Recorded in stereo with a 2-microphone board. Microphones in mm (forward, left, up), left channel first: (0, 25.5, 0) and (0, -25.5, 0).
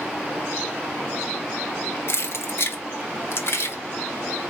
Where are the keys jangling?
55° left (ahead or behind), 0.6 m.